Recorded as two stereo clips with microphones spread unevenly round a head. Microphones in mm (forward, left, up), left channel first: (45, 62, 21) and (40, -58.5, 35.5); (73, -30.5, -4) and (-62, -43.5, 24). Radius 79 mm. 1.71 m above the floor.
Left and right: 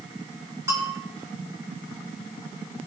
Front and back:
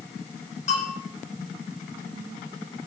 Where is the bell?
25° right, 6 m.